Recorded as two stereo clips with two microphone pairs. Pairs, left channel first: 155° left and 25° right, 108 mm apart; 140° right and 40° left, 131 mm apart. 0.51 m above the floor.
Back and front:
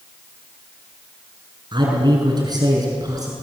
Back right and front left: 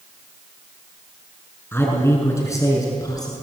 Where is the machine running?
No machine running in this recording.